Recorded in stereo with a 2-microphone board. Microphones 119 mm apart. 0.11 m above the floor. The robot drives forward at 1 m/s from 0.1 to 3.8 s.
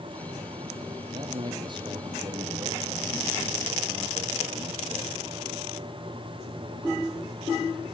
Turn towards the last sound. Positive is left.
turn(degrees=-25)  # may be behind; listen again after turning